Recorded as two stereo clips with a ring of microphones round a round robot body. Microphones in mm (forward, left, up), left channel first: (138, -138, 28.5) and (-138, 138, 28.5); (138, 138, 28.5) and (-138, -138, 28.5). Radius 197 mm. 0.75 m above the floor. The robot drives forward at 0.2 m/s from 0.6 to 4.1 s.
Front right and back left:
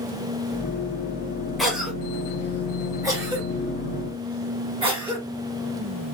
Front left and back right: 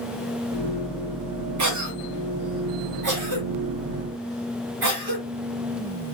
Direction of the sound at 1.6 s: 135° right.